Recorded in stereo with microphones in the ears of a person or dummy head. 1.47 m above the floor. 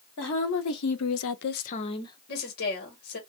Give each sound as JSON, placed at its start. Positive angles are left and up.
{"t": 0.2, "sound": "a woman speaking", "side_deg": 60, "distance_m": 1.2}
{"t": 2.3, "sound": "a woman speaking", "side_deg": 50, "distance_m": 2.0}